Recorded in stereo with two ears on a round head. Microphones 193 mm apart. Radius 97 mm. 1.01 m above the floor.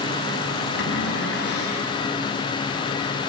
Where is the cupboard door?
55° left (ahead or behind), 4.5 m.